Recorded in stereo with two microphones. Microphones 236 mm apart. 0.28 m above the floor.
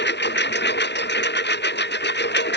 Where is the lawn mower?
50° left (ahead or behind).